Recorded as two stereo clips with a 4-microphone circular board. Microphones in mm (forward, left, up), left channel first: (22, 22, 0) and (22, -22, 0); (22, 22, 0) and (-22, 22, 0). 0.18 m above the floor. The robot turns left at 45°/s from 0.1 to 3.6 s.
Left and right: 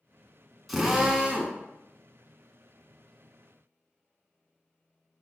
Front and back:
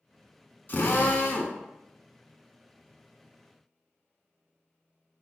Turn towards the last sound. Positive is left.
turn(degrees=-135)